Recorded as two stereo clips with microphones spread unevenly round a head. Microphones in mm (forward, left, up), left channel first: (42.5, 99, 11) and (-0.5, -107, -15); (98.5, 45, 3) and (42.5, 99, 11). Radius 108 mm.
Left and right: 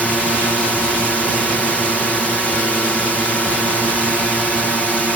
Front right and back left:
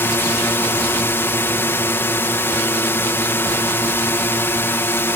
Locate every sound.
0.0 s a drone: 10° right